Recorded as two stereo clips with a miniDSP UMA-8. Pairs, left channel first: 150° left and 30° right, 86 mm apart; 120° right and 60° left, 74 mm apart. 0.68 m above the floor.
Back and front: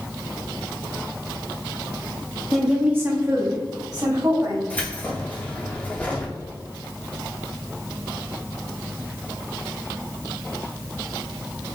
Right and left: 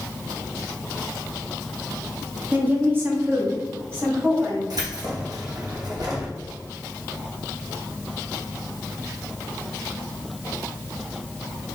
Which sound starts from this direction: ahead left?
A woman speaking, at 2.5 s.